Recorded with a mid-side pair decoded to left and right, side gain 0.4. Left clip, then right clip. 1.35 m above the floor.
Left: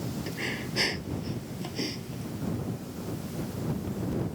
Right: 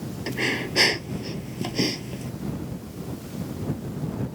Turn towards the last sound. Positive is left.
turn(degrees=-55)